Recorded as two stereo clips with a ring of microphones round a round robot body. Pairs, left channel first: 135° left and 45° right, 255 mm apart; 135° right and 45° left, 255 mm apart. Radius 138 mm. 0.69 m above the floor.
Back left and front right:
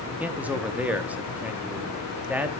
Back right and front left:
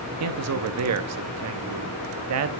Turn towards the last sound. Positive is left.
turn(degrees=40)